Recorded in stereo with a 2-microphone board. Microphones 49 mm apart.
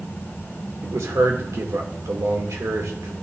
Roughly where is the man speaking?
Right.